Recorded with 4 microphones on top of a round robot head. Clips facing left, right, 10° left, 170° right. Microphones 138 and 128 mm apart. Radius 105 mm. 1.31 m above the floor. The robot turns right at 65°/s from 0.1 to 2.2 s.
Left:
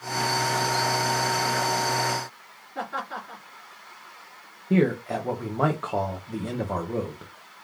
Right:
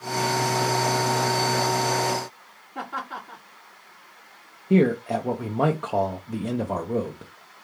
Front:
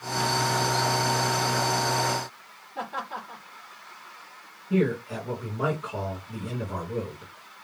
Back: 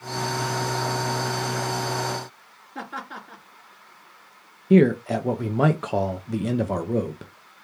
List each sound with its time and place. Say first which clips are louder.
2.8 s laughter: left 1 dB, front 2 dB; 165° right, 3 m
4.7 s a man speaking: right 3 dB, back 8 dB; 165° right, 0.5 m